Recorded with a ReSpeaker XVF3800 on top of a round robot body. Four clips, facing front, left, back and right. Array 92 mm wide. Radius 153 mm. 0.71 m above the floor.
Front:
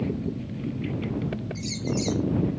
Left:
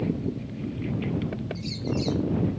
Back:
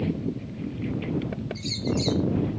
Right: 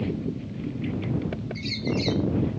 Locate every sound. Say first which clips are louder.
1.6 s a bird: right 3 dB, back 3 dB; 70° right